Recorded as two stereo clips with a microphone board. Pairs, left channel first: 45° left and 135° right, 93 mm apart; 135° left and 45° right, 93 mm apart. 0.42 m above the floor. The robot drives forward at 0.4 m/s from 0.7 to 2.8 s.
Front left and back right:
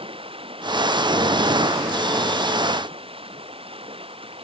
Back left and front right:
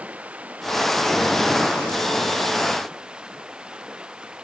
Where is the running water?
120° right; by 4.5 s 125° right.